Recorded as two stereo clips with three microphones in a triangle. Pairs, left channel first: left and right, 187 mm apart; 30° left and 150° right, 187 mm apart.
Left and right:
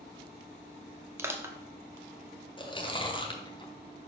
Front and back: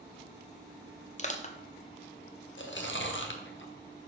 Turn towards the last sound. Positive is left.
turn(degrees=30)